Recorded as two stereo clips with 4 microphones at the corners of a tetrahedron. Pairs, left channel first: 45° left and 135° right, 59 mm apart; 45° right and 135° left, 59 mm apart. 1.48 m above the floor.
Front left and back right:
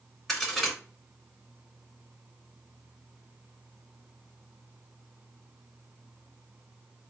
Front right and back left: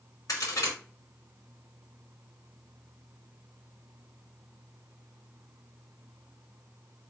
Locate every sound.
0.3 s a crack: 40° right, 3 m